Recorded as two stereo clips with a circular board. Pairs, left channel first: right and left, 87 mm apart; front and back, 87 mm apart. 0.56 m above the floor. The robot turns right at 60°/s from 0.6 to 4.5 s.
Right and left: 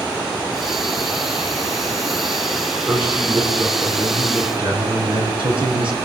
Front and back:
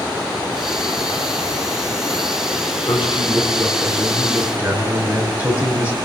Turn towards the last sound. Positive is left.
turn(degrees=110)